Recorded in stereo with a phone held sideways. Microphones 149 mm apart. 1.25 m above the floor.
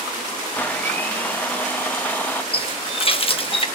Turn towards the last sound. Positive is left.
turn(degrees=40)  # may be behind; listen again after turning